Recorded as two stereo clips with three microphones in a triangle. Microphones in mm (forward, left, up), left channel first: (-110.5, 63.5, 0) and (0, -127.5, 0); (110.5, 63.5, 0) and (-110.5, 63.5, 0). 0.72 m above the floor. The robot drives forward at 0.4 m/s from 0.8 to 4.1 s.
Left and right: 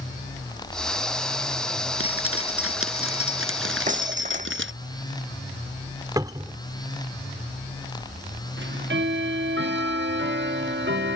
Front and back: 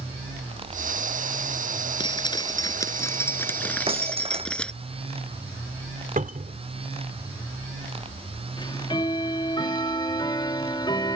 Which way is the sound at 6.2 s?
130° right.